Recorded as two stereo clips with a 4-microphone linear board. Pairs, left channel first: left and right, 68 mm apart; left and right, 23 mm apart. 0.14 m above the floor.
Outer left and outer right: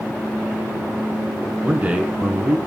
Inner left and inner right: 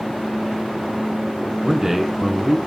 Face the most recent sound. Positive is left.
turn(degrees=-25)  # may be behind; listen again after turning